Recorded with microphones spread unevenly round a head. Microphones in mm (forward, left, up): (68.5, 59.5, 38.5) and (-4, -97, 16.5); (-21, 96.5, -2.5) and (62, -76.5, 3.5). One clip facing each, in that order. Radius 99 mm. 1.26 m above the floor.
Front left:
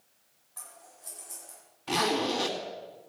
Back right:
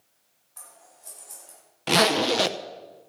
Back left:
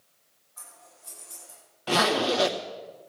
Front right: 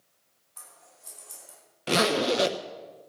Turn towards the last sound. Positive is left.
turn(degrees=-130)